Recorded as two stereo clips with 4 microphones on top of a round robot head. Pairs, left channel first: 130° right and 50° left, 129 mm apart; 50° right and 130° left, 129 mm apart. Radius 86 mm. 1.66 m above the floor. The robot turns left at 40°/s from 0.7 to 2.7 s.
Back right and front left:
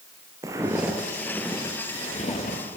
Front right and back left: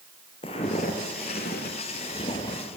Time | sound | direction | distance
0.4 | footsteps | 10° right | 2 m